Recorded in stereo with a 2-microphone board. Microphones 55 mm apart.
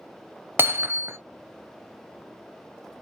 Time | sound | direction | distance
0.6 | hammering | 45° right (ahead or behind) | 0.8 m